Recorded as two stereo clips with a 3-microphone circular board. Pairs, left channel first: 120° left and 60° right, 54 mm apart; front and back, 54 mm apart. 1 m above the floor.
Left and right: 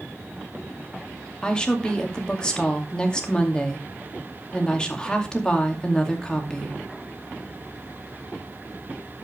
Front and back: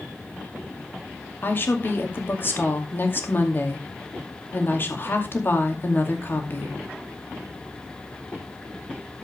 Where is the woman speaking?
45° left, 2.5 m.